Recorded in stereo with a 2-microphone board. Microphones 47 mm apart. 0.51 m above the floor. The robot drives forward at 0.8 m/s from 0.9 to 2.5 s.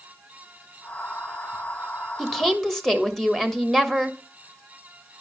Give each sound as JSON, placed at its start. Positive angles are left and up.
{"t": 2.2, "sound": "a woman speaking", "side_deg": 5, "distance_m": 1.3}